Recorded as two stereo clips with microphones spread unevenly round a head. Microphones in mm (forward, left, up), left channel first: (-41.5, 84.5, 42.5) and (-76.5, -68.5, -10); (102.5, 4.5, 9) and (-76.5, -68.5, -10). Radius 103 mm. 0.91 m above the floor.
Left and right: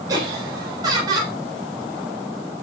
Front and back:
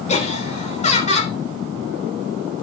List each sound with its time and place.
0.1 s laughter: 35° right, 3.5 m